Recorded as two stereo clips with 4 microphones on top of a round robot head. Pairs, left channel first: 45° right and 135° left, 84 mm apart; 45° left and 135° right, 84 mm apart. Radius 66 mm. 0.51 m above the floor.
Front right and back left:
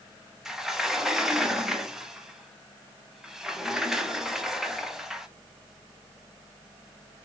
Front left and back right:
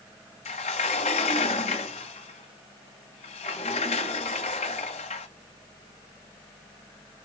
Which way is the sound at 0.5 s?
50° left.